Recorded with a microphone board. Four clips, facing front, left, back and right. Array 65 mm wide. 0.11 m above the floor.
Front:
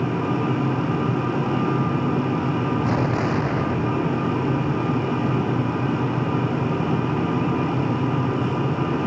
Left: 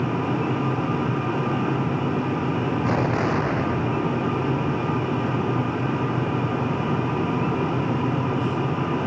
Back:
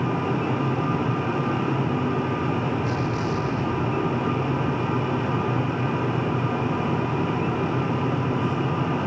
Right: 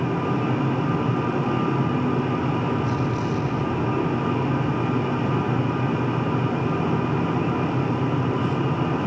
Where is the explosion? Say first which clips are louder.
Left 3 dB, front 4 dB; 60° left.